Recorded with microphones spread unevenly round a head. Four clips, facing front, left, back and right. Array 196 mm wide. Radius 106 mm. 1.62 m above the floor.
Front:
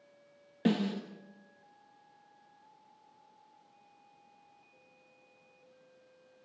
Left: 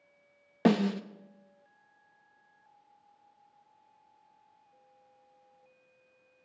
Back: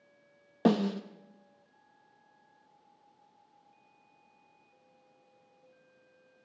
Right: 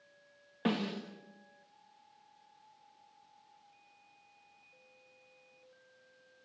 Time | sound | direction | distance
0.7 | a snare drum | 130° left | 1.0 m